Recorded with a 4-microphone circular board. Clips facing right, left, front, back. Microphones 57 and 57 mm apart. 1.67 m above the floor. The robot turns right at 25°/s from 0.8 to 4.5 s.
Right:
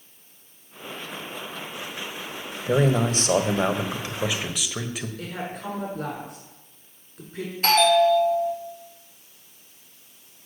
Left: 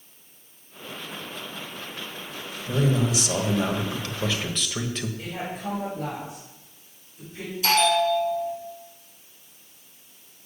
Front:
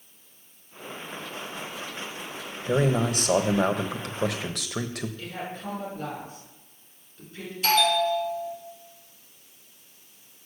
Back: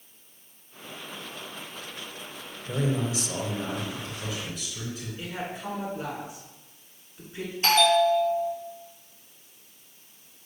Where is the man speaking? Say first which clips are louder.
Right 3 dB, front 5 dB; 50° right, 1.2 m; by 5.1 s 5° right, 1.2 m.